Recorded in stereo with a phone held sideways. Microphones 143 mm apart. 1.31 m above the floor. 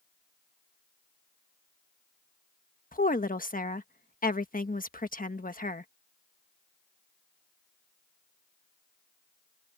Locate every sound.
2.9 s a woman speaking: 75° left (ahead or behind)